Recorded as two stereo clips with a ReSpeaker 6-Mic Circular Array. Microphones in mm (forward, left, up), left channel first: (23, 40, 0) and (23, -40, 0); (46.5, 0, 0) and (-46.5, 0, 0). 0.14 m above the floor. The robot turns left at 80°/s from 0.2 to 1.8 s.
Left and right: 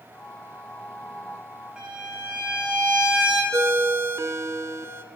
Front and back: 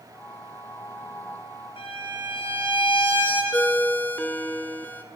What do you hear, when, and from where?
1.8 s a violin: 10° right, 1.2 m
3.5 s a ringtone: 60° right, 0.5 m